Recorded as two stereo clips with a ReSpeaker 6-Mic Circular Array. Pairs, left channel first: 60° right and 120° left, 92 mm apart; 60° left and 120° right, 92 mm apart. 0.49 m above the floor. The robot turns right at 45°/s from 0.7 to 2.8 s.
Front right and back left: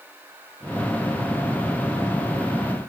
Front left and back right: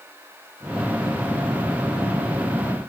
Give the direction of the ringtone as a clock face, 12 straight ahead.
No ringtone in this recording.